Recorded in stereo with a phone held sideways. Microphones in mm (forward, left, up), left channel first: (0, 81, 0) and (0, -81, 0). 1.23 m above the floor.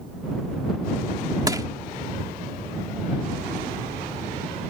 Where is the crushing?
25° right (ahead or behind).